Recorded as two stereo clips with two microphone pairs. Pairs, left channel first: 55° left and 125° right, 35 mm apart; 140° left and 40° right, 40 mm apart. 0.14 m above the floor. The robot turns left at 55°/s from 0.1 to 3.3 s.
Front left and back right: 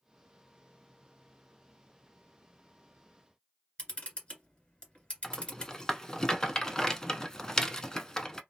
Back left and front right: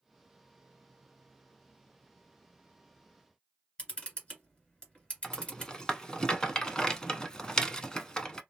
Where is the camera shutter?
90° left, 1.9 m.